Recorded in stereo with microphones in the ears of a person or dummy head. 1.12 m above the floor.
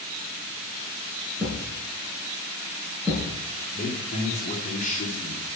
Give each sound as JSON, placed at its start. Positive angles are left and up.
{"t": 1.4, "sound": "a thud", "side_deg": 0, "distance_m": 7.0}
{"t": 3.7, "sound": "a man speaking", "side_deg": 40, "distance_m": 3.5}